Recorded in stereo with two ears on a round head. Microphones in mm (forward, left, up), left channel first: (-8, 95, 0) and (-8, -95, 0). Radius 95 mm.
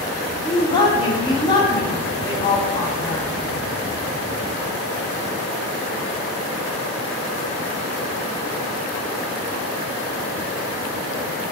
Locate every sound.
0.5 s a woman speaking: 20° left (ahead or behind), 0.7 m